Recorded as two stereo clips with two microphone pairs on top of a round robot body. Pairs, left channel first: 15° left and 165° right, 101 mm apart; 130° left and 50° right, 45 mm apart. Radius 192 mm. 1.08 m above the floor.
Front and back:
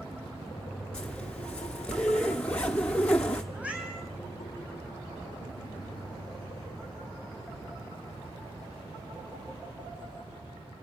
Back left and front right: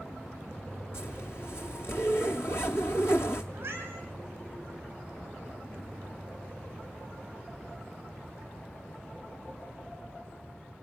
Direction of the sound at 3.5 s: 90° right.